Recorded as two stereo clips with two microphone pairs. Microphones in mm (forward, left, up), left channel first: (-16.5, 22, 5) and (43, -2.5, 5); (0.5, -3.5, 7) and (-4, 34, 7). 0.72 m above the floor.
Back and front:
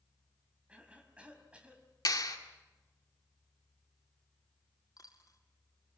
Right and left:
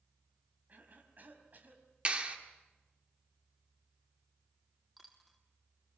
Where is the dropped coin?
170° right, 2.5 m.